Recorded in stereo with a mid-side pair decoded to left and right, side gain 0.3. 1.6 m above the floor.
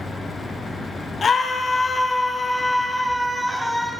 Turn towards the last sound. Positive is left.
turn(degrees=-20)